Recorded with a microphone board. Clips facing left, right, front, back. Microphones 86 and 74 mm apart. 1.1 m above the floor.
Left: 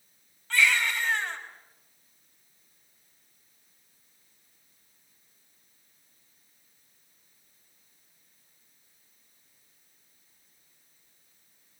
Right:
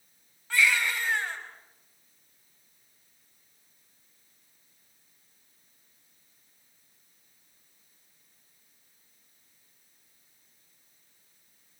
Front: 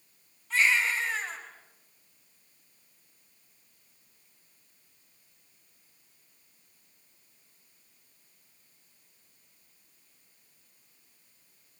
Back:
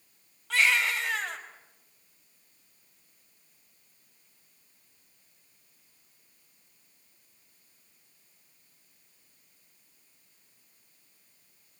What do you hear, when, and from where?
0.5 s a baby crying: 170° right, 5 m